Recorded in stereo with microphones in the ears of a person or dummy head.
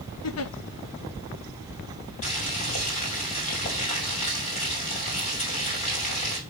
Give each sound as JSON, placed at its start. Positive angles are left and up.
{"t": 0.2, "sound": "a giggle", "side_deg": 70, "distance_m": 0.8}
{"t": 2.2, "sound": "boiling", "side_deg": 35, "distance_m": 2.5}